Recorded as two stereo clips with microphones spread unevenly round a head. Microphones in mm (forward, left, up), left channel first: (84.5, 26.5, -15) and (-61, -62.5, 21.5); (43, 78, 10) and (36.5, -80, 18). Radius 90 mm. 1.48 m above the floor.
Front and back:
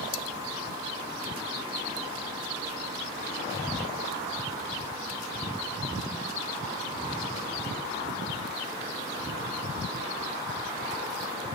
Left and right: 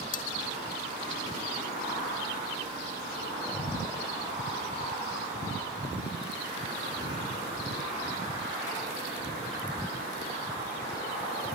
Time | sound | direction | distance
0.1 | cutlery clinking | 50° left | ?